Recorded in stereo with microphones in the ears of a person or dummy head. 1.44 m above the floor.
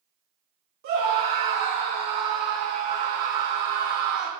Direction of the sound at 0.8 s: 50° right (ahead or behind).